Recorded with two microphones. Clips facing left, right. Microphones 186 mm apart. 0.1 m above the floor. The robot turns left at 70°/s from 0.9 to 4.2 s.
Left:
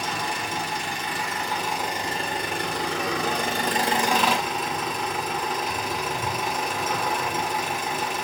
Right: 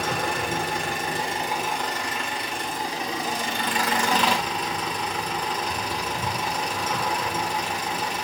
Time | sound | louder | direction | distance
0.0 | an engine running | right 3 dB | 120° right | 2.5 m